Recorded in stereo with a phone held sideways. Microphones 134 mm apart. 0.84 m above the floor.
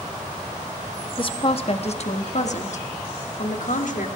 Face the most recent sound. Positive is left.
turn(degrees=70)  # may be behind; listen again after turning